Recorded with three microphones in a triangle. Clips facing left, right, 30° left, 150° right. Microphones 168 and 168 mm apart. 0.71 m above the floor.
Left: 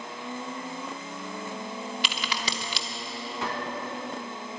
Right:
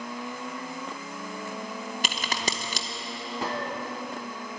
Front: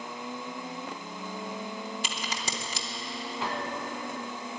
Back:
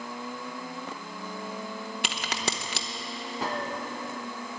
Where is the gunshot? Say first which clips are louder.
Right 2 dB, back 2 dB; 125° right, 1.5 m.